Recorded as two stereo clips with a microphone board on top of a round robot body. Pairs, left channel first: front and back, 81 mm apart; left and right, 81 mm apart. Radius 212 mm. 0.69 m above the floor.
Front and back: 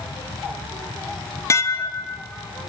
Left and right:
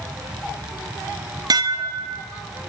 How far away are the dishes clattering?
About 1.0 m.